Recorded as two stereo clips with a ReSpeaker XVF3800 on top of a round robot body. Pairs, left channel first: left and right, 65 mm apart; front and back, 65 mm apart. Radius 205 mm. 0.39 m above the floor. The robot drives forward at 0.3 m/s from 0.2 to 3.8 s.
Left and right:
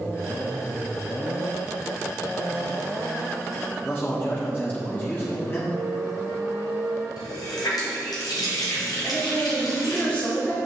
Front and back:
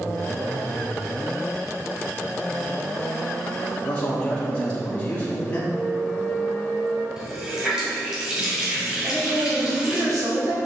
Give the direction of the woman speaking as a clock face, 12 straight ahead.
7 o'clock.